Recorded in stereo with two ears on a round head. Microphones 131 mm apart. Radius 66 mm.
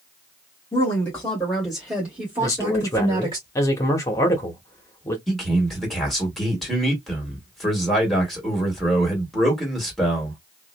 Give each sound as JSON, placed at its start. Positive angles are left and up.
{"t": 0.7, "sound": "a woman speaking", "side_deg": 20, "distance_m": 1.5}
{"t": 2.4, "sound": "a man speaking", "side_deg": 20, "distance_m": 0.9}
{"t": 5.3, "sound": "a man speaking", "side_deg": 0, "distance_m": 1.6}